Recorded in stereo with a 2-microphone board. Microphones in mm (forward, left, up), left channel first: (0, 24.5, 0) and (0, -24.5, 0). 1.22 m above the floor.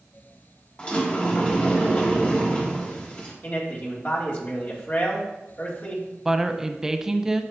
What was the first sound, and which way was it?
A sliding door, 25° left (ahead or behind).